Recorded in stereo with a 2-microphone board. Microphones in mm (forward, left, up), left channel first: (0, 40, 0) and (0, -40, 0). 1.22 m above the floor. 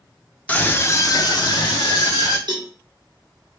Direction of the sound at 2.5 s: 65° right (ahead or behind).